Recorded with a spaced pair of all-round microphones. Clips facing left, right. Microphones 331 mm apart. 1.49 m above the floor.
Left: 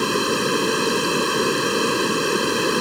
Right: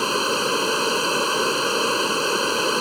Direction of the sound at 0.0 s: 25° left (ahead or behind).